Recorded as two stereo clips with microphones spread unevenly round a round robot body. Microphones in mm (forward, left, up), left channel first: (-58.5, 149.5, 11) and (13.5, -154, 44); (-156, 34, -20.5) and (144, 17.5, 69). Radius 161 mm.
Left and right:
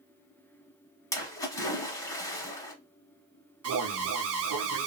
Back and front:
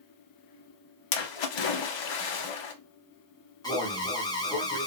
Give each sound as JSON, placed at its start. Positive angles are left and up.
{"t": 1.1, "sound": "a splash", "azimuth_deg": -175, "distance_m": 0.7}
{"t": 3.6, "sound": "an alarm", "azimuth_deg": -120, "distance_m": 0.6}